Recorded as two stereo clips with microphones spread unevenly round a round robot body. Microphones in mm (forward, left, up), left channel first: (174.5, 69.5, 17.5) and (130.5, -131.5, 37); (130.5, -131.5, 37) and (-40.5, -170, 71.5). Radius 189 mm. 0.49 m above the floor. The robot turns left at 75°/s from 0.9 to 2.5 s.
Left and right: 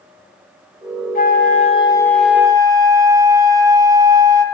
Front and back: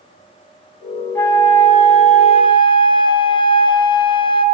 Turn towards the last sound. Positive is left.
turn(degrees=-25)